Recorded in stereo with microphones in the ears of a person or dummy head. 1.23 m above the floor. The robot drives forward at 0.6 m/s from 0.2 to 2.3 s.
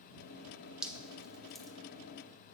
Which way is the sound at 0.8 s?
Centre (ahead or behind).